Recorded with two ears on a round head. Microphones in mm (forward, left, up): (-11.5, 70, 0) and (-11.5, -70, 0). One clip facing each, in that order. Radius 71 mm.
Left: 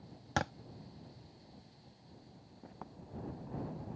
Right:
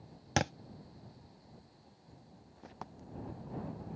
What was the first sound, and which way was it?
A thud, 25° right (ahead or behind).